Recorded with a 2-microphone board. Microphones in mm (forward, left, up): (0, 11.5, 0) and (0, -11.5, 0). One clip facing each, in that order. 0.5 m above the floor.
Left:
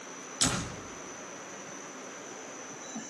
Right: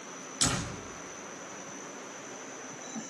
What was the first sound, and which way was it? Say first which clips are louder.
A door slam: even; 10° left (ahead or behind).